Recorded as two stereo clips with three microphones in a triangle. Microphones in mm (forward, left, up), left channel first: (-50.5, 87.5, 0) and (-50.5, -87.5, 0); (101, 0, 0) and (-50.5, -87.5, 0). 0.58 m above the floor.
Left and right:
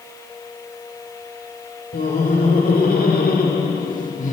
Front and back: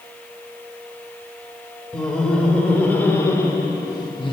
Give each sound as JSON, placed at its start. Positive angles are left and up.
{"t": 1.9, "sound": "laughter", "azimuth_deg": 115, "distance_m": 2.5}